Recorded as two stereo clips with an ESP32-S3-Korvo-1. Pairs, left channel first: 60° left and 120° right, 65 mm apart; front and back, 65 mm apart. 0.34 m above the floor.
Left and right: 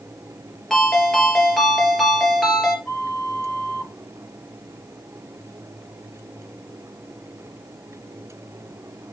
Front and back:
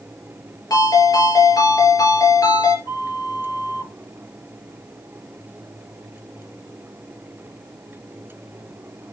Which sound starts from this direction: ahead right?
A flute, at 2.9 s.